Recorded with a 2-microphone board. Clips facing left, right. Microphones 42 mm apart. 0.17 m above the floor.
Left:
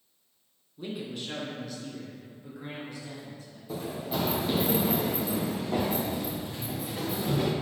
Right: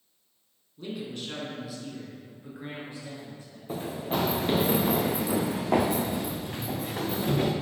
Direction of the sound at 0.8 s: 15° left (ahead or behind).